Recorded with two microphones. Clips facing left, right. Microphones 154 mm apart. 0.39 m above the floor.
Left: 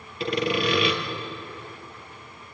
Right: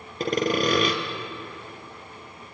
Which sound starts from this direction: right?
Sawing, at 0.2 s.